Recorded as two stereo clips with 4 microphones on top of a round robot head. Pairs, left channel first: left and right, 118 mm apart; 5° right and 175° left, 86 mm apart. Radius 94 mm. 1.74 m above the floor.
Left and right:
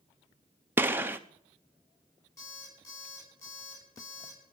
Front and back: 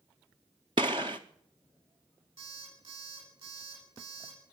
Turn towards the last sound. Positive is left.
turn(degrees=155)